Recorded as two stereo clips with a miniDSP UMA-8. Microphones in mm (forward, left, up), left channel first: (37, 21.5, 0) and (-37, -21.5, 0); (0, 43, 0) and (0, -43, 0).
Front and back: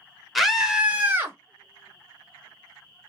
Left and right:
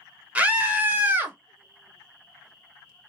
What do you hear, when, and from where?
0.3 s a scream: 60° right, 1.0 m; by 1.4 s 130° right, 1.1 m